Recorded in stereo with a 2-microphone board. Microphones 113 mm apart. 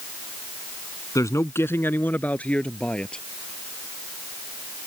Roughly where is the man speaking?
Left.